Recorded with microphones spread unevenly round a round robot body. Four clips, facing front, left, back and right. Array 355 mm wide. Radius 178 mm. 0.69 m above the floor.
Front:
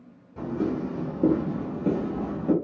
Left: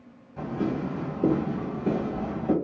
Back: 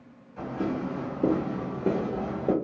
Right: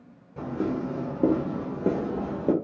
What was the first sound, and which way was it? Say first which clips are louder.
Footsteps: even, front 2 dB; 55° right.